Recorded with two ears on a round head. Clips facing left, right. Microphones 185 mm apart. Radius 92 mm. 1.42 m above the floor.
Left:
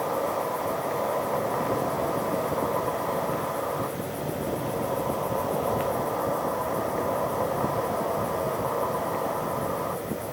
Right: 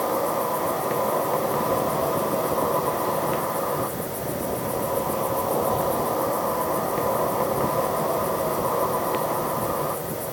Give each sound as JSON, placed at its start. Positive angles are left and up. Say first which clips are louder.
{"t": 0.0, "sound": "an insect", "louder": "right 3 dB", "side_deg": -50, "distance_m": 0.8}